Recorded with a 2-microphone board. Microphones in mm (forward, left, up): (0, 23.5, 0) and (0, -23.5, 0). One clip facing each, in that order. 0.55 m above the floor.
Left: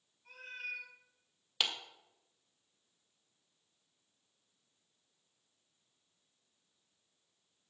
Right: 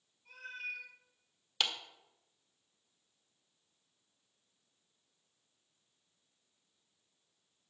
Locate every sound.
0.2 s a cat meowing: 30° left (ahead or behind), 6 m
1.6 s a clap: 5° left (ahead or behind), 1.7 m